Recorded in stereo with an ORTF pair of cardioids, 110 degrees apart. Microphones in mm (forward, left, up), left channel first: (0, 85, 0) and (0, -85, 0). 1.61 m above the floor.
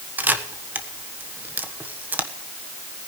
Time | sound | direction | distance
0.2 | a camera shutter | 10° right | 1.3 m